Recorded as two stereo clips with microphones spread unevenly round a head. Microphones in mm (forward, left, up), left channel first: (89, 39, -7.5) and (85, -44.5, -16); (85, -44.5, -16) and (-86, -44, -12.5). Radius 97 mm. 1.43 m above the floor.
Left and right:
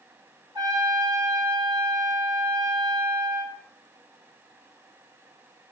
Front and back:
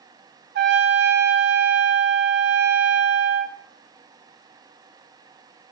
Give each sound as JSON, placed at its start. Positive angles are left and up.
{"t": 0.6, "sound": "a trumpet", "azimuth_deg": -160, "distance_m": 1.3}